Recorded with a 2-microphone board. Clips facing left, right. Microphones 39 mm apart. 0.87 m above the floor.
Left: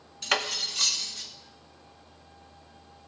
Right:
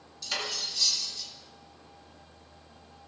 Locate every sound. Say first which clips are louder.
0.2 s cutlery clinking: left 6 dB; 55° left (ahead or behind), 0.7 m